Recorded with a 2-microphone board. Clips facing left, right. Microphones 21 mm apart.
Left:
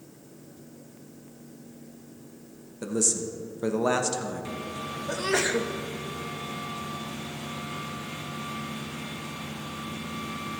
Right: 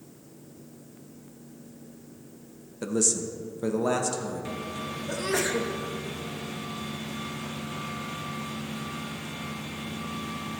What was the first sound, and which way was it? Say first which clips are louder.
A man speaking: right 1 dB; 10° right (ahead or behind).